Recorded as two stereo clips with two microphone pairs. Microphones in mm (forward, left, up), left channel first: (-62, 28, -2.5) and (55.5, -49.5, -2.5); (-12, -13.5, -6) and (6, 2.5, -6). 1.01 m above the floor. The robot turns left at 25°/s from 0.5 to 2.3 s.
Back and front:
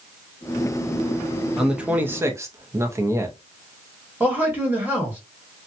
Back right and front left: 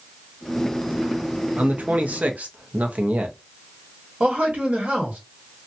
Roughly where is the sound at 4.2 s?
Ahead left.